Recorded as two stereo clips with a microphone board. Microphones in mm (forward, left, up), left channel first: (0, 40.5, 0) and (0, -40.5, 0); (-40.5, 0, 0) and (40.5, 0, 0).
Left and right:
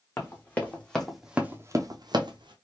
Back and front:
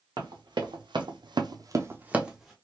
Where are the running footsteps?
30° left, 1.3 m; by 2.5 s 90° right, 0.9 m.